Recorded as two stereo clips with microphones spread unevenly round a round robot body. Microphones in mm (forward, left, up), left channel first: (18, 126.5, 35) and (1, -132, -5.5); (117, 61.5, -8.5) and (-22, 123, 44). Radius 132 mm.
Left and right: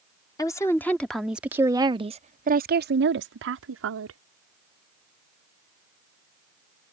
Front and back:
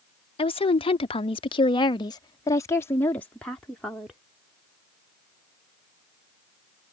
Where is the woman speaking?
5° left; by 4.2 s 105° right.